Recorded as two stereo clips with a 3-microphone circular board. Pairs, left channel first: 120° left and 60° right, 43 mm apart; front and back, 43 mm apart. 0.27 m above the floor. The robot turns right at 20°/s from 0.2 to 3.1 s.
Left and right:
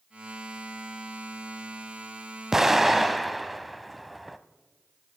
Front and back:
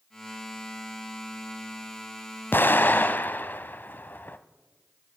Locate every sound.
2.5 s an explosion: 15° left, 0.6 m; by 4.4 s 25° left, 0.6 m